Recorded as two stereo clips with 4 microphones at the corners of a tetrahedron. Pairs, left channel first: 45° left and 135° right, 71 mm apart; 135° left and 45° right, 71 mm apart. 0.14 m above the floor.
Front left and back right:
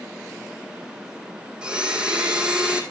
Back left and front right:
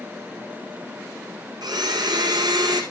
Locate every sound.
1.6 s a blender: 60° right, 1.7 m